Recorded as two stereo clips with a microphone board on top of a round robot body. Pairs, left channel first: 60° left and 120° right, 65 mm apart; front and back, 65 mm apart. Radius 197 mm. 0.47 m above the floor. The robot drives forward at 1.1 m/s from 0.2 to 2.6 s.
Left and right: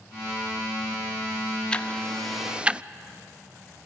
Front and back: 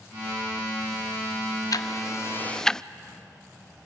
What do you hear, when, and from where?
1.7 s ticking: 10° right, 1.3 m; by 2.8 s 70° right, 0.7 m